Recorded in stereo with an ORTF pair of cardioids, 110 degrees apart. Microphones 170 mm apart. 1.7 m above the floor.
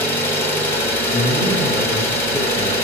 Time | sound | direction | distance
0.0 | an engine running | 10° left | 1.8 m
1.1 | a man speaking | 65° left | 2 m